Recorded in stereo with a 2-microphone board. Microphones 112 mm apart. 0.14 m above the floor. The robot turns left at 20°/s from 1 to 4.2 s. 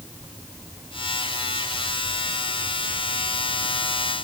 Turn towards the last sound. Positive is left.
No sound to turn to.